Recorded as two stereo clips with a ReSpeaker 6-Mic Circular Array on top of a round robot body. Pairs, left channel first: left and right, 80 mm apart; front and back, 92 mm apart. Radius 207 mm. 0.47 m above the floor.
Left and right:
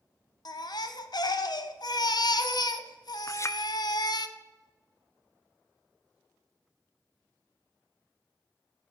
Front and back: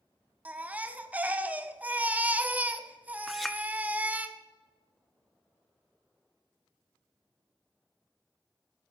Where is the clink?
90° left, 0.6 m.